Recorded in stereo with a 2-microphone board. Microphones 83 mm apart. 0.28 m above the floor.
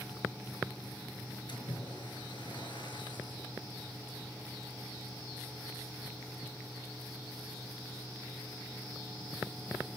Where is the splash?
70° left (ahead or behind), 5.5 m.